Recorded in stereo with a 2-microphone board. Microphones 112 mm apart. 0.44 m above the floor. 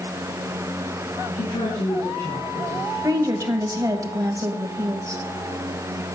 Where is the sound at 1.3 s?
70° left (ahead or behind), 5.5 m; by 2.9 s 75° left (ahead or behind), 5 m.